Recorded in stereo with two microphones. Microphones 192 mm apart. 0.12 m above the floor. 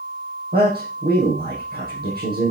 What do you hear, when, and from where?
0.5 s a man speaking: 60° right (ahead or behind), 5 m